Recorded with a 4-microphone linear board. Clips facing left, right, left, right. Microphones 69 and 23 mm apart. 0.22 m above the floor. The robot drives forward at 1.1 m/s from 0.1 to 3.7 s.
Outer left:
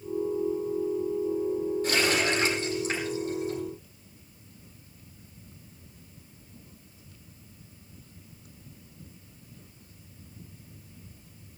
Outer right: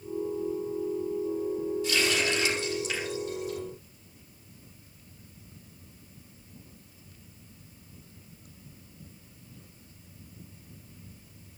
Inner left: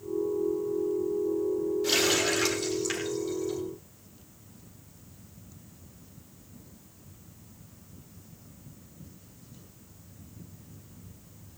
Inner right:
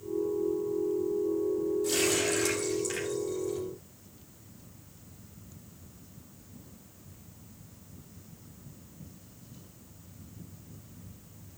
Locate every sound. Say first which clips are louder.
1.8 s a running tap: outer left 2 dB, inner left 5 dB; 50° left (ahead or behind), 5 m; by 3.6 s 35° left (ahead or behind), 6.5 m